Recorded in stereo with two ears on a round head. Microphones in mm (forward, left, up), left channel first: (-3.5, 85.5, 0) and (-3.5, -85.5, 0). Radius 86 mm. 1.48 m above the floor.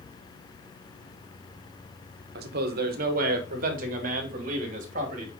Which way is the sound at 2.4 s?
60° right (ahead or behind).